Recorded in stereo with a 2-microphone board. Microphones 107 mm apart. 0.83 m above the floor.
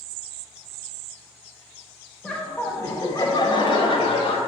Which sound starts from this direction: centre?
Laughter, at 2.2 s.